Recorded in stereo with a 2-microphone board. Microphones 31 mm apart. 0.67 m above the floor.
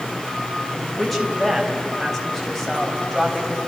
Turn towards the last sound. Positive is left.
turn(degrees=5)  # may be behind; listen again after turning